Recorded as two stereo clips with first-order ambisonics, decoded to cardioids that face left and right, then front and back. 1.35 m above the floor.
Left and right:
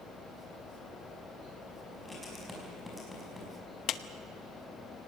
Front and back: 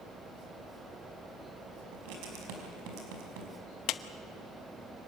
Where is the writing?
175° left, 5.5 m.